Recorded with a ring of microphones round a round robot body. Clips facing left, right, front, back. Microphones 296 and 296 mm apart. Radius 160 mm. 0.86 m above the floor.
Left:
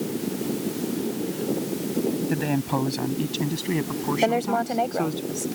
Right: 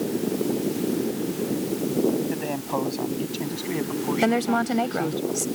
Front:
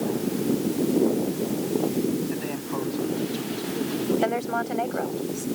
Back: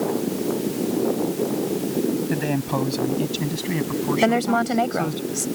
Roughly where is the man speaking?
Behind left.